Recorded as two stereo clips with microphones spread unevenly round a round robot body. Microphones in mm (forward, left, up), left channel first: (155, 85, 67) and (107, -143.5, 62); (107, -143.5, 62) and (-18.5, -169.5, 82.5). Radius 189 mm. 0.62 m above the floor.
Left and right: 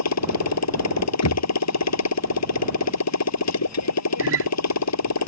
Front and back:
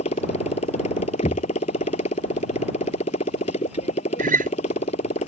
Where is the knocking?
75° left.